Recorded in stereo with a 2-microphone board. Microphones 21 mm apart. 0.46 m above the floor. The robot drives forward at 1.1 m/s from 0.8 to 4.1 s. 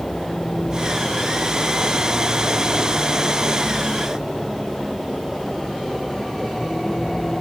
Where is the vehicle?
35° left (ahead or behind); by 7.4 s 30° left (ahead or behind).